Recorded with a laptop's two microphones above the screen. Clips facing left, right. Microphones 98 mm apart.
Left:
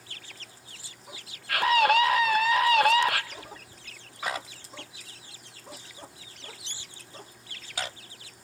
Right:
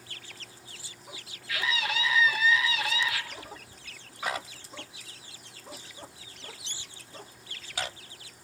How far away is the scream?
About 1.0 m.